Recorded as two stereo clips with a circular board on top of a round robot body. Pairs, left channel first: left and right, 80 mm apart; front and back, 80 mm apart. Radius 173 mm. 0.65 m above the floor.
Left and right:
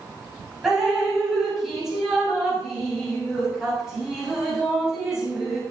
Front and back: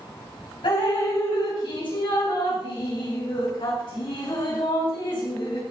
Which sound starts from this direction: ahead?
Dripping, at 0.6 s.